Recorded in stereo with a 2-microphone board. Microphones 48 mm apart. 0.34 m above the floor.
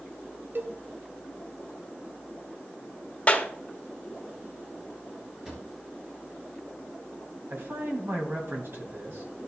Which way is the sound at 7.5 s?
60° right (ahead or behind).